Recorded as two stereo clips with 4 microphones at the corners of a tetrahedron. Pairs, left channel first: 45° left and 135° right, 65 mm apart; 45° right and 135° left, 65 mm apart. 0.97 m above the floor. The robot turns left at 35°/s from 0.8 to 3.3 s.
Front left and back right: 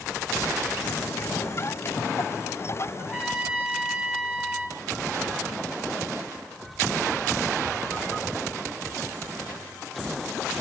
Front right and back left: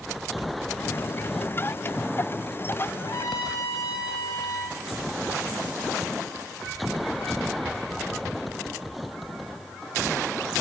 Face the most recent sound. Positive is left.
turn(degrees=-30)